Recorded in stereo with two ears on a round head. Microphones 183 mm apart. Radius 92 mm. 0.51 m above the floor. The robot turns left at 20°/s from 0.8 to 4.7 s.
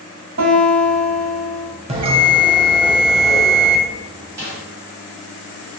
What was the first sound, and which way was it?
A guitar, 75° right (ahead or behind).